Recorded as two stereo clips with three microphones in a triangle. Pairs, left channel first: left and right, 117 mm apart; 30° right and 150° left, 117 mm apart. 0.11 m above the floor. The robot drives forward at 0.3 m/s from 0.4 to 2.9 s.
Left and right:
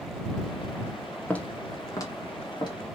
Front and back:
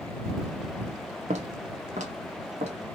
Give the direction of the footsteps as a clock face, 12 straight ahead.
6 o'clock.